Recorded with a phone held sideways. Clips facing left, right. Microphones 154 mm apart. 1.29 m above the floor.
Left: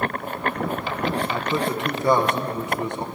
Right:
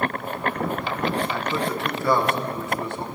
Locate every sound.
1.3 s a man speaking: 20° left (ahead or behind), 1.0 m